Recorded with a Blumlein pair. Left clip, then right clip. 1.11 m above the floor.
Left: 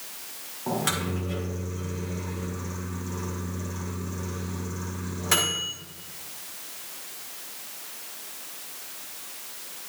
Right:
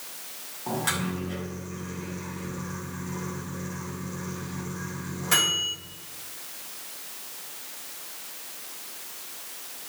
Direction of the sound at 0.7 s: 10° left.